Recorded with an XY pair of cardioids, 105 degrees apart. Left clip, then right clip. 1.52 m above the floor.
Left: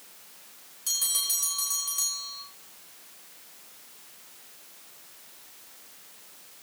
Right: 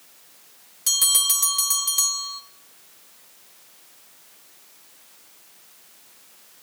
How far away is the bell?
About 1.7 m.